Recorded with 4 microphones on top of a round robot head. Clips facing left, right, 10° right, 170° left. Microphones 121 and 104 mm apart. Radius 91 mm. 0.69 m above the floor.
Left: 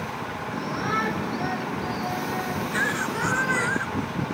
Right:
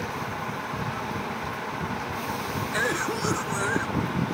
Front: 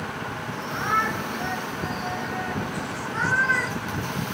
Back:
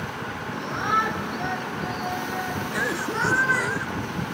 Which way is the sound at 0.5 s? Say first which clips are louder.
Left 4 dB, back 1 dB; 95° left.